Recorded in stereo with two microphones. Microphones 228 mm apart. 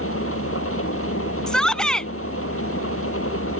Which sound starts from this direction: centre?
A shout, at 1.5 s.